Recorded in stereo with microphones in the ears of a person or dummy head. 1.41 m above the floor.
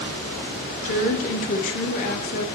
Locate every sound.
0.8 s a woman speaking: 45° left (ahead or behind), 0.5 m